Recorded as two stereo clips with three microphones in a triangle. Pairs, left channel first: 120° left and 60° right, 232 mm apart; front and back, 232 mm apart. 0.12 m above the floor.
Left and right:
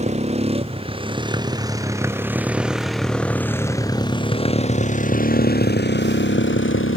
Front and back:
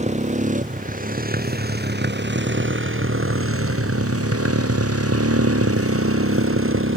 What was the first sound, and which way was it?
A motorcycle, 120° right.